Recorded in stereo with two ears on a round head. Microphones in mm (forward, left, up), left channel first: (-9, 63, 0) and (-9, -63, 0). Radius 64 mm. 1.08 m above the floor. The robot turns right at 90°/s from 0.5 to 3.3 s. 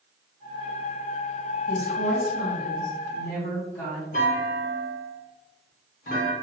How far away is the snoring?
I don't hear snoring.